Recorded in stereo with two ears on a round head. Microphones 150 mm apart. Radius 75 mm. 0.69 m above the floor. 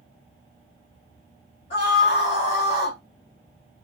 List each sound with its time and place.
1.7 s a scream: 40° left (ahead or behind), 2.5 m